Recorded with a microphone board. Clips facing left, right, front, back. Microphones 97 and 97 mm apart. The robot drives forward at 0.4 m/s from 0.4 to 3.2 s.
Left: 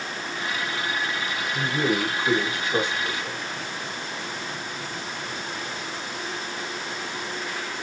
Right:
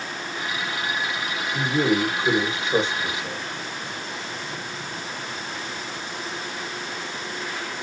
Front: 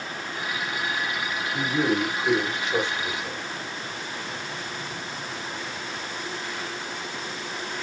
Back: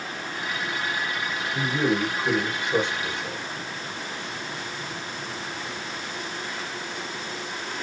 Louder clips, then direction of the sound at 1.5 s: Right 3 dB, even; 75° right.